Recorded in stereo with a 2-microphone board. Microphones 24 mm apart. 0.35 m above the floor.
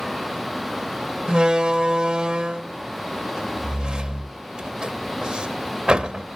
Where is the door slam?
40° right (ahead or behind), 0.7 m.